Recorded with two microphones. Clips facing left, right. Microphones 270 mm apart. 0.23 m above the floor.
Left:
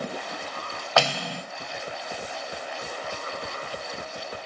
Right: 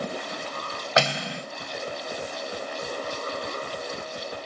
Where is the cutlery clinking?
20° right (ahead or behind), 0.7 m.